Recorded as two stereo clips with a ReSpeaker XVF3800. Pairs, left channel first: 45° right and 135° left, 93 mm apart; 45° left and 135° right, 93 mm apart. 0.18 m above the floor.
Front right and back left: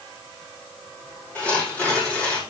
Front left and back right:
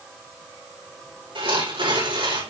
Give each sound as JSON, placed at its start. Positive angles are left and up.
{"t": 1.4, "sound": "tearing paper", "azimuth_deg": -120, "distance_m": 7.0}